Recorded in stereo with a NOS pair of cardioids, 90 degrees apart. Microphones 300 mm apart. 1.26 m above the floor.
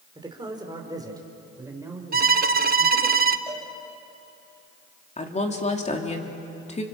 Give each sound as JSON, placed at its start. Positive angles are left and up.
{"t": 0.1, "sound": "a woman speaking", "azimuth_deg": -15, "distance_m": 4.5}
{"t": 2.1, "sound": "a violin", "azimuth_deg": -30, "distance_m": 1.0}
{"t": 3.5, "sound": "a cowbell", "azimuth_deg": -15, "distance_m": 6.5}
{"t": 5.2, "sound": "a woman speaking", "azimuth_deg": 20, "distance_m": 3.5}